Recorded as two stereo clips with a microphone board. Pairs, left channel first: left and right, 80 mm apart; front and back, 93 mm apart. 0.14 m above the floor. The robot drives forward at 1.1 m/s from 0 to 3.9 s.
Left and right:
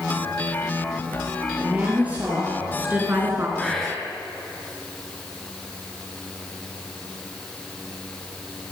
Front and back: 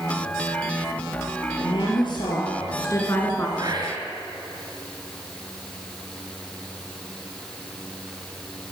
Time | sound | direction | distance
1.6 | a woman speaking | 15° right | 3 m
3.6 | whispering | 170° left | 2 m